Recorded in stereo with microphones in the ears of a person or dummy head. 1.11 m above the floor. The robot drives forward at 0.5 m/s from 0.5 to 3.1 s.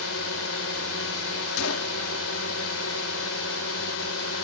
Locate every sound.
0.0 s a drone: 75° left (ahead or behind)
1.6 s a gunshot: 80° left; by 2.0 s 85° left